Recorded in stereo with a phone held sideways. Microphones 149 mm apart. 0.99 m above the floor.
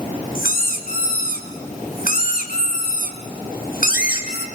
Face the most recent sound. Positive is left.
turn(degrees=70)  # may be behind; listen again after turning